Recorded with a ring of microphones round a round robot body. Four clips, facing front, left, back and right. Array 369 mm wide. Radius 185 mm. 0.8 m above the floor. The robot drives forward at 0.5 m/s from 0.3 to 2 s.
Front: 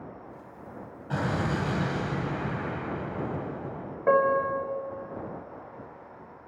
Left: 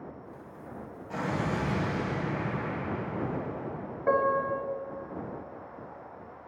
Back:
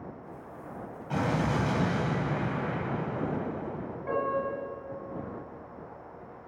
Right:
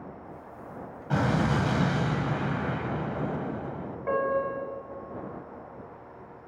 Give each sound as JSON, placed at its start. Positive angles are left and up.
{"t": 1.1, "sound": "an explosion", "azimuth_deg": -80, "distance_m": 4.0}
{"t": 4.1, "sound": "a piano", "azimuth_deg": 20, "distance_m": 4.0}